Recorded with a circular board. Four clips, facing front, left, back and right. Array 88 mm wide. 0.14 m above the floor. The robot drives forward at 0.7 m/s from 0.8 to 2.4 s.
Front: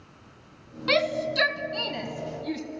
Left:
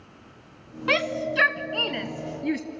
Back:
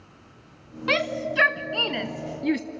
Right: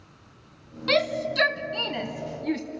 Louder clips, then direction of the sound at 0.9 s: Right 1 dB, front 1 dB; 115° left.